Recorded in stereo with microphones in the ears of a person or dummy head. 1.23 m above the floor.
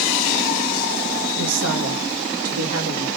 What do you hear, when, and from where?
1.4 s a woman speaking: 80° right, 1.6 m; by 3.1 s 70° right (ahead or behind), 2 m